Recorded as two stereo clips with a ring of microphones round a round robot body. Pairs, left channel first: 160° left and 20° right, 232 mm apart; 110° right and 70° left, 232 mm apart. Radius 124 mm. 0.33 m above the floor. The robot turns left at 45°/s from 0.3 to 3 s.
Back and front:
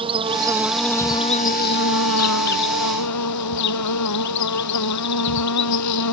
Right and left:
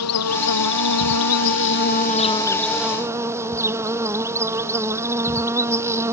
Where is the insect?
90° right; by 6.1 s 145° left.